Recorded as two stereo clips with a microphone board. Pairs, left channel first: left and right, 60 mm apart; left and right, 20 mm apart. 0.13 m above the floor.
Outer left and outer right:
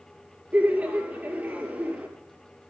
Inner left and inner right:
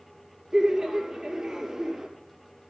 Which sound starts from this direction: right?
Laughter, at 0.5 s.